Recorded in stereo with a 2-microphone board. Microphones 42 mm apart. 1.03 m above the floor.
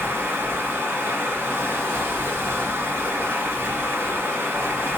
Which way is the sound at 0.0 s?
70° right (ahead or behind).